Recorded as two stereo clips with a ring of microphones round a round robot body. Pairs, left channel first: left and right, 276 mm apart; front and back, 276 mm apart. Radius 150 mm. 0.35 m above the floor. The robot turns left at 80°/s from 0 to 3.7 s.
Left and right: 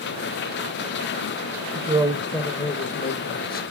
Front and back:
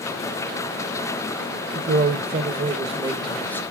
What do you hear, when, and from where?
1.8 s a man speaking: 140° right, 0.9 m; by 3.6 s 70° left, 0.9 m